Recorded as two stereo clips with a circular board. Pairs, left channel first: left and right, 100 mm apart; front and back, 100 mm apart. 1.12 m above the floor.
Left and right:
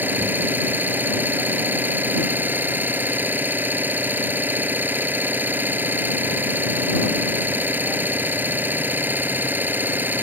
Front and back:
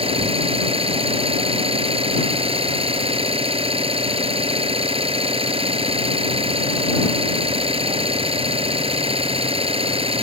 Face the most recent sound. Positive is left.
turn(degrees=-160)